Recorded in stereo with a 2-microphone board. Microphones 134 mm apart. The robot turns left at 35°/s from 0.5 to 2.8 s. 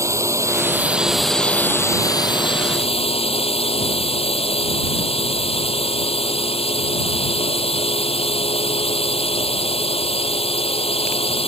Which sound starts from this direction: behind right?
A drone, at 0.0 s.